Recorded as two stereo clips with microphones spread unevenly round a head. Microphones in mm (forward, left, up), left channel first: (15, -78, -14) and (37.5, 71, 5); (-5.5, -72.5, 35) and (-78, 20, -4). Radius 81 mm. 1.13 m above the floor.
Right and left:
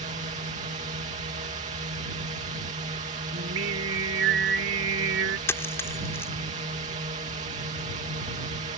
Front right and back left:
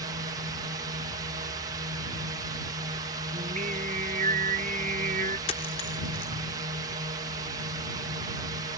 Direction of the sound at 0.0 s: 120° left.